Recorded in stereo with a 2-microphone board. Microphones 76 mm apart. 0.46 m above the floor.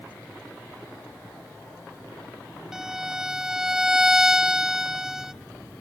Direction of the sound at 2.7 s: 5° right (ahead or behind).